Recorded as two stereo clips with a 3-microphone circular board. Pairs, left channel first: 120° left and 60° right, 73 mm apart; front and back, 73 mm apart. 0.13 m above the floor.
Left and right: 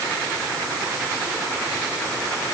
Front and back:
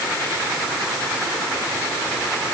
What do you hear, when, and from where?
Only background noise.